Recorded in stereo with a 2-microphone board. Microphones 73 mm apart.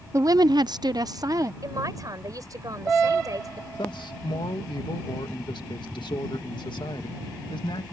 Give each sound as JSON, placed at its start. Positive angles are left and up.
{"t": 0.1, "sound": "a woman speaking", "side_deg": -40}
{"t": 1.6, "sound": "a man speaking", "side_deg": -50}
{"t": 3.8, "sound": "a man speaking", "side_deg": 85}